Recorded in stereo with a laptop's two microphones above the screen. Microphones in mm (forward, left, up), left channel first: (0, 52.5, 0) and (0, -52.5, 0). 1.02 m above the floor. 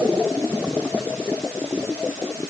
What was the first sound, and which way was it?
Only background noise.